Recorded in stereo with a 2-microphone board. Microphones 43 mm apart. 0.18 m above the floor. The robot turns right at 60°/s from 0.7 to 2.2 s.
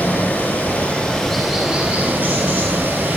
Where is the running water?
140° left, 3.5 m; by 3.2 s 130° right, 3.5 m.